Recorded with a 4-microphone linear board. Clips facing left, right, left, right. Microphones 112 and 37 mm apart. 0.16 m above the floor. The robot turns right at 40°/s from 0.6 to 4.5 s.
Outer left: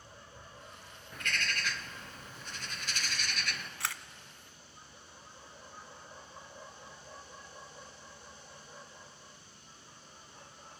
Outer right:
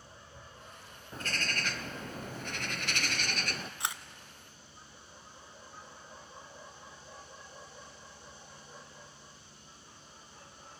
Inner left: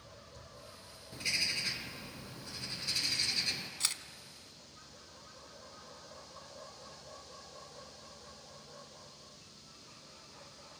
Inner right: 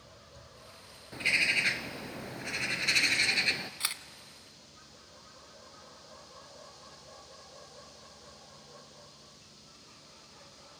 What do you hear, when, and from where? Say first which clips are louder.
1.1 s a bird: even, inner right 9 dB; 145° right, 0.8 m; by 3.7 s 40° right, 0.8 m
3.8 s a camera shutter: even, inner right 2 dB; 20° right (ahead or behind), 0.6 m